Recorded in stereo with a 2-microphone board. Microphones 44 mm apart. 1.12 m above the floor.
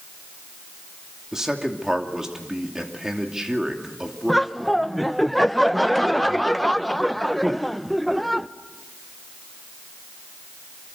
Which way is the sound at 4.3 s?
5° left (ahead or behind).